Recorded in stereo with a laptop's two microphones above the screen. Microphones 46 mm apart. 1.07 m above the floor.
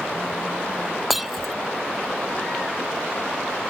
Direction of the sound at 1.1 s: 5° right (ahead or behind).